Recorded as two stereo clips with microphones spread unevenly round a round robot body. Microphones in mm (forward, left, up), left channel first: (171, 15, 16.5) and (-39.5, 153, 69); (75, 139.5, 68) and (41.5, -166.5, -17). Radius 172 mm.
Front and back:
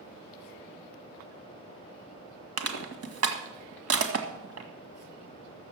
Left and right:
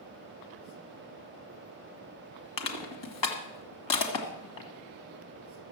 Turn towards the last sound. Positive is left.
turn(degrees=120)